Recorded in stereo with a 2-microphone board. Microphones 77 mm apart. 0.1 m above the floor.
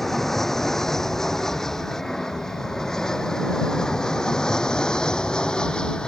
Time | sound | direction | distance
0.0 | an aircraft | 5° left (ahead or behind) | ?